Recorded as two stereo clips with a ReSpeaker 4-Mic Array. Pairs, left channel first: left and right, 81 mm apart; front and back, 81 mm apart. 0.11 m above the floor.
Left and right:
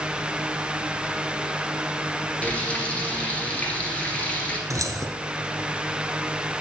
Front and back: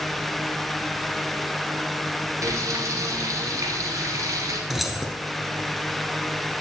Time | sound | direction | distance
2.4 | frying | 160° left | 2 m
4.7 | keys jangling | 95° right | 1.3 m